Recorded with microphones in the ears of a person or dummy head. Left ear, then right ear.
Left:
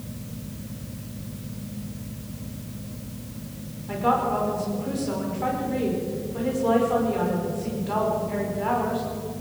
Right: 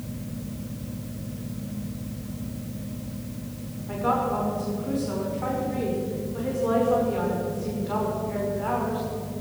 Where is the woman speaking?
10° left (ahead or behind), 5.5 m.